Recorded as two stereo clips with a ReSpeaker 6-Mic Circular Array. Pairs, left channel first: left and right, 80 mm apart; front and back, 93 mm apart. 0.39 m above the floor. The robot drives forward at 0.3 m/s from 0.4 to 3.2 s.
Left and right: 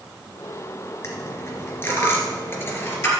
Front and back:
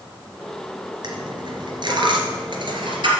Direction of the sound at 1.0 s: 145° left.